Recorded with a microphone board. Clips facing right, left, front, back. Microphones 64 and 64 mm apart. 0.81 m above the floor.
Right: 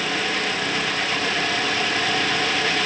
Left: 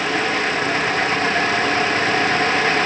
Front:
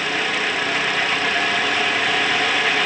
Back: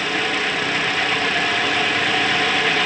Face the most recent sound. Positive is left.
No sound to turn to.